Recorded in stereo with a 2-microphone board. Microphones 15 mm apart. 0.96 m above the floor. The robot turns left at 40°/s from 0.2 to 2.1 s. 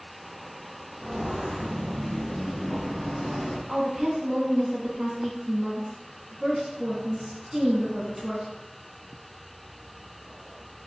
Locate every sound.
1.0 s footsteps: 20° right (ahead or behind), 1.9 m; by 3.6 s 30° left (ahead or behind), 1.0 m
3.7 s a woman speaking: 30° right (ahead or behind), 1.0 m